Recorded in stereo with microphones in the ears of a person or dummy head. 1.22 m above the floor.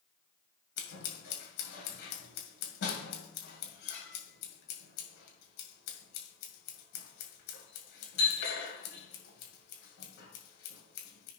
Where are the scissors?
70° left (ahead or behind), 2.5 m.